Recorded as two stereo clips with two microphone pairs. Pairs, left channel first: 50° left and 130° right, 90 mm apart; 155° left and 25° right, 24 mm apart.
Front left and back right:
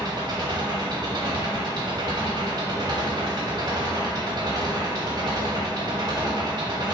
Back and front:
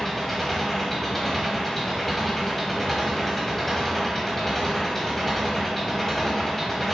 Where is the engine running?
125° right, 0.9 m.